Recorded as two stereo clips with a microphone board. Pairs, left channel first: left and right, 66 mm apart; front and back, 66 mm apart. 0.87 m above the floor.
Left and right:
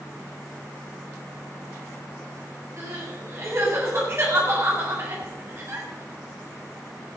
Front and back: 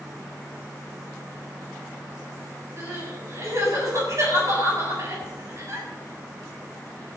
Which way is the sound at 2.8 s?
135° right.